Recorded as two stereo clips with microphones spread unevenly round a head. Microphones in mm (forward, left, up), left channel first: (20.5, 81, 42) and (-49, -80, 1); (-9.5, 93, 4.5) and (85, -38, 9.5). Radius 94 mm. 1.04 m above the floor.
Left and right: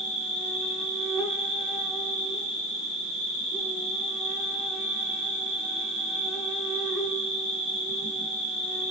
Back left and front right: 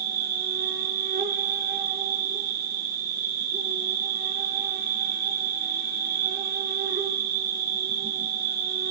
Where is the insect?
25° right, 5.5 m.